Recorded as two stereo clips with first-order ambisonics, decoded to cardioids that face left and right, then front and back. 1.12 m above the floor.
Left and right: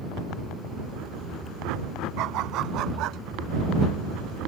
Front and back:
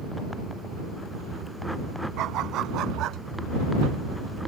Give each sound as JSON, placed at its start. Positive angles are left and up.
{"t": 2.2, "sound": "a dog barking", "azimuth_deg": -130}